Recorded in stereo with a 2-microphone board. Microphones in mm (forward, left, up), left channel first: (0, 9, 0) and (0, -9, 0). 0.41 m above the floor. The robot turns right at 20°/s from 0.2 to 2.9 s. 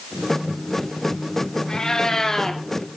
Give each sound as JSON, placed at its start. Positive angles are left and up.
{"t": 1.7, "sound": "a cat meowing", "side_deg": 50, "distance_m": 1.0}